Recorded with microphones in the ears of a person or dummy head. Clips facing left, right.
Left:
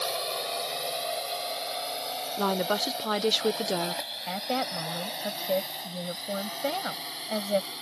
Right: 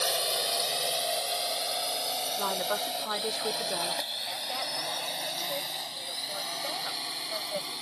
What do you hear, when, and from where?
0.0 s a drone: 15° right (ahead or behind); by 7.8 s centre (ahead or behind)
2.4 s a woman speaking: 40° left (ahead or behind)
4.3 s a woman speaking: 65° left (ahead or behind)